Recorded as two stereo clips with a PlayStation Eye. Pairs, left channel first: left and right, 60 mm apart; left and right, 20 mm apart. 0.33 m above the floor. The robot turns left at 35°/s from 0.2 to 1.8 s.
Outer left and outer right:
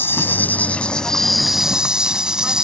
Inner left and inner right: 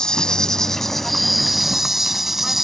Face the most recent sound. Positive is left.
turn(degrees=-15)